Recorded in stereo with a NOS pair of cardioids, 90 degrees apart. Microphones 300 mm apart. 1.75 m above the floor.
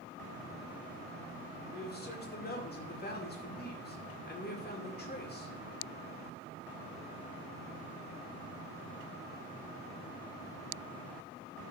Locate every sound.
1.7 s a man speaking: 35° left, 2.5 m